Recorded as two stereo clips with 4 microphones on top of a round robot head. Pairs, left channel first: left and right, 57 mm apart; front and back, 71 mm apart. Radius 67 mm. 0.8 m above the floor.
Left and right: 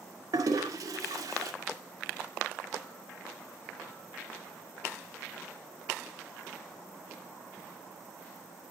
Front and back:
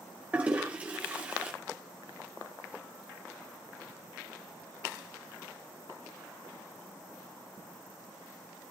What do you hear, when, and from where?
0.3 s a toilet flushing: 105° right, 2 m